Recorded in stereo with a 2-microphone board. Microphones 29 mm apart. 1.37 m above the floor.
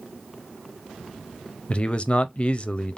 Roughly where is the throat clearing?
No throat clearing in this recording.